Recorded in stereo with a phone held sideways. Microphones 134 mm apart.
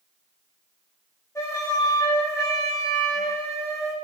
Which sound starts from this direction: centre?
A flute, at 1.4 s.